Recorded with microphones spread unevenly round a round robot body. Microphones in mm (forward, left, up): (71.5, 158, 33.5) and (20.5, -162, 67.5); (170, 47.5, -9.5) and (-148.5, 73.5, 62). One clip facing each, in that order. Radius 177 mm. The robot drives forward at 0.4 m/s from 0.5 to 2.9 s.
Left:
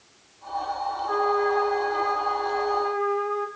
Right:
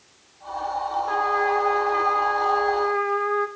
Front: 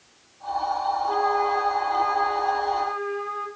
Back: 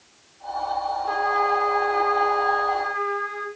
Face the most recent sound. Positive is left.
turn(degrees=-150)